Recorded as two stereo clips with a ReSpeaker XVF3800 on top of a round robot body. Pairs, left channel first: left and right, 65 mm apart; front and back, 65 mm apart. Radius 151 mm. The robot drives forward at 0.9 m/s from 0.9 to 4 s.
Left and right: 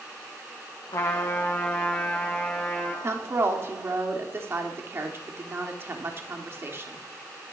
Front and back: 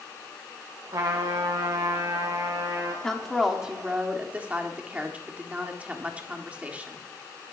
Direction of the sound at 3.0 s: 75° right.